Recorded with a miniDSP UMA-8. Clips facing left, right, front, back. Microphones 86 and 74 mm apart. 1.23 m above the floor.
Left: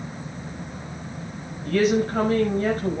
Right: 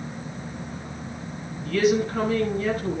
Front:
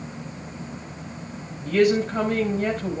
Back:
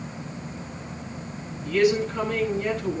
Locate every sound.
1.6 s a woman speaking: 45° left, 5.5 m